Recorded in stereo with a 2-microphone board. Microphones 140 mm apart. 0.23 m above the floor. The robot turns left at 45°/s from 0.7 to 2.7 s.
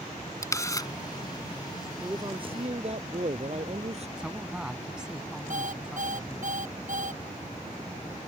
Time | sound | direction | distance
0.4 | a camera shutter | 25° left (ahead or behind) | ?
2.0 | a man speaking | 20° right | ?
4.2 | a man speaking | 5° right (ahead or behind) | ?
5.5 | an alarm clock | 65° right (ahead or behind) | ?